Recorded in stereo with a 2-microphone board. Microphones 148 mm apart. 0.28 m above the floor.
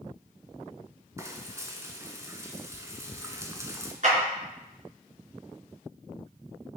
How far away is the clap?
About 4 m.